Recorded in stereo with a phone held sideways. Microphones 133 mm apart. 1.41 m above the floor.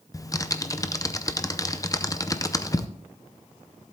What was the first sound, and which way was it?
Typing on a keyboard, 25° left (ahead or behind).